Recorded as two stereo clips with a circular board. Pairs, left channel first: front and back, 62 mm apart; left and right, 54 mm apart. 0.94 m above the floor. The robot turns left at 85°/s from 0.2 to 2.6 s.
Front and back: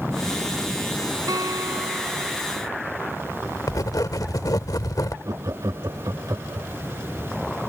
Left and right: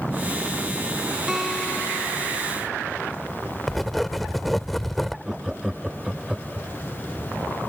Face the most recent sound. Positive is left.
turn(degrees=-170)